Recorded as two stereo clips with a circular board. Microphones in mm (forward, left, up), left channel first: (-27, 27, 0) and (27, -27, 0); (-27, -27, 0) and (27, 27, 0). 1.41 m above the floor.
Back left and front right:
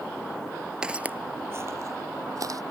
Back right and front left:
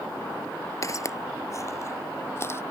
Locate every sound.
0.8 s footsteps: 120° right; by 2.6 s 80° right